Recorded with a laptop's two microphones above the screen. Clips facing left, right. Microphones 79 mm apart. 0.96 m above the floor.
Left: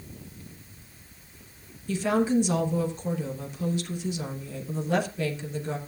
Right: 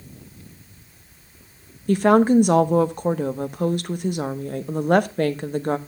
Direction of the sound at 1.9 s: 55° right (ahead or behind).